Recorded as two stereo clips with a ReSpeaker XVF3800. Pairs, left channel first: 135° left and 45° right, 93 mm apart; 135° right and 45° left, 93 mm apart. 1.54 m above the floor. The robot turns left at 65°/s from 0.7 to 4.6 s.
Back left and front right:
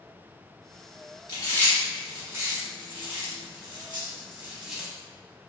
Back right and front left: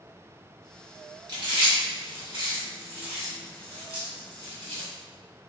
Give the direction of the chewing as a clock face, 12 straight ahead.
9 o'clock.